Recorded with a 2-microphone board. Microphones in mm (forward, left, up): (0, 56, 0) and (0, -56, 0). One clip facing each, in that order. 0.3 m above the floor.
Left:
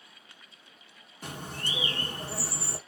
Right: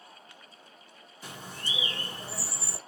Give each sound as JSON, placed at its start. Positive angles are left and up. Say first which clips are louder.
{"t": 1.2, "sound": "a bird", "louder": "left 3 dB", "side_deg": 60, "distance_m": 1.0}